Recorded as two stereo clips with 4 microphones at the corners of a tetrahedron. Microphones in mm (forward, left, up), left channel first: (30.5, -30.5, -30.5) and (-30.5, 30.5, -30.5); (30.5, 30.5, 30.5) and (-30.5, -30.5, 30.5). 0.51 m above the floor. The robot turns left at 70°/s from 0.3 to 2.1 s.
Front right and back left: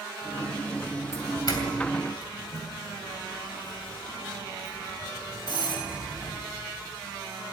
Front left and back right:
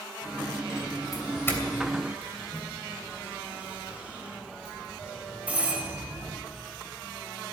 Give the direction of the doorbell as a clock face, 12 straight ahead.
12 o'clock.